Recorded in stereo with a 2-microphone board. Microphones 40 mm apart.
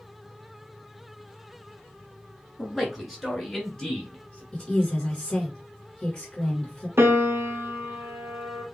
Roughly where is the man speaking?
Centre.